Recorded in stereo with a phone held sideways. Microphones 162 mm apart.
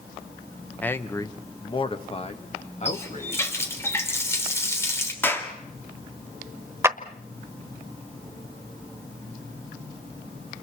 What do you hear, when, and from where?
0.8 s a man speaking: 10° left (ahead or behind), 1.0 m; by 3.5 s 45° left (ahead or behind), 2.5 m
2.9 s a running tap: 15° left (ahead or behind), 3 m
5.2 s a clap: 15° left (ahead or behind), 2 m
6.8 s a clap: 15° right (ahead or behind), 1.0 m